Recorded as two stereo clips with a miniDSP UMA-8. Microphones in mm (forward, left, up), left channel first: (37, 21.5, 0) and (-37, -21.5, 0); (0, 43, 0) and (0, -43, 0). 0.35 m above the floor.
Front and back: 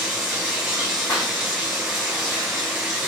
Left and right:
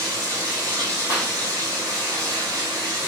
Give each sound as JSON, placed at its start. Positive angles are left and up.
{"t": 0.0, "sound": "running water", "azimuth_deg": -70, "distance_m": 1.5}
{"t": 1.1, "sound": "a clap", "azimuth_deg": -25, "distance_m": 2.5}